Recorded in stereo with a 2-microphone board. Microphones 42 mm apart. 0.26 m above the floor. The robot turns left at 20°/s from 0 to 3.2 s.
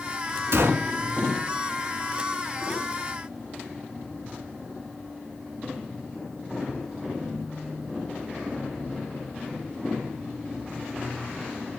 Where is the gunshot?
80° right, 0.5 m.